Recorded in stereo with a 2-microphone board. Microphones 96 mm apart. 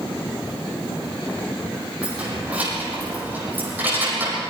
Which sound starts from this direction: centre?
Keys jangling, at 2.0 s.